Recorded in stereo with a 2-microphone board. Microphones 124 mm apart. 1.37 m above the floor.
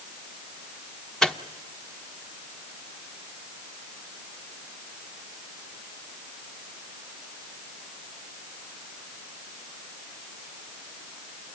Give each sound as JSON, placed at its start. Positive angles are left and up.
{"t": 1.2, "sound": "a microwave", "side_deg": 5, "distance_m": 0.9}